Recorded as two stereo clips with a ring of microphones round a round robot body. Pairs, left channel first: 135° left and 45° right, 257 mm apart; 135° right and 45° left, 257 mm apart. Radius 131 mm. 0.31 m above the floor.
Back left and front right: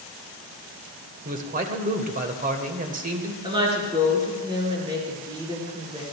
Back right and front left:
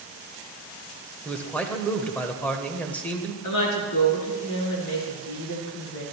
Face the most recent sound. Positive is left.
turn(degrees=-115)